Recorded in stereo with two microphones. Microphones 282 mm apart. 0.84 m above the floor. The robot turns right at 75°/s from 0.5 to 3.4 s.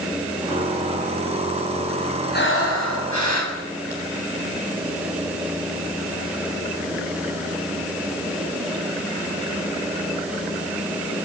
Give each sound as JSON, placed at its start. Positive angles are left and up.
{"t": 2.3, "sound": "breathing", "azimuth_deg": 35, "distance_m": 6.5}